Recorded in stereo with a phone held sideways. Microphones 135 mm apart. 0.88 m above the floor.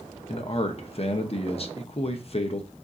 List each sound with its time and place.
0.3 s a man speaking: 50° left (ahead or behind), 0.7 m